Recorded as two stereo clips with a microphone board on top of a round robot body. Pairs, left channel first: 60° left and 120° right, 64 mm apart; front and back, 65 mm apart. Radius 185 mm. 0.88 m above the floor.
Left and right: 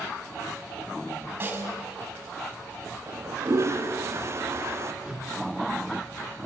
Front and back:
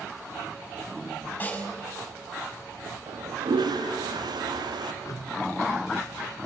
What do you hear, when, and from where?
1.4 s a snare drum: 65° right, 5 m
3.1 s a toilet flushing: 170° right, 1.7 m
5.0 s a whoosh: 40° right, 2 m